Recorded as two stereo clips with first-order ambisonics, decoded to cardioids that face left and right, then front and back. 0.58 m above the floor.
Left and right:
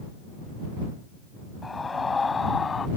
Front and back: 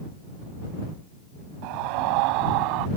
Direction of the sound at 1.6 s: 170° left.